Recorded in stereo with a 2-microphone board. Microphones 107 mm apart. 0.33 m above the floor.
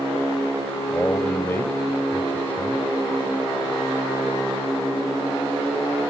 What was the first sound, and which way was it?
A man speaking, 20° left (ahead or behind).